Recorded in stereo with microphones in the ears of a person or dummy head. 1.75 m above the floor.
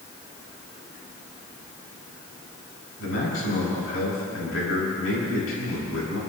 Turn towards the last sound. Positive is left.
turn(degrees=80)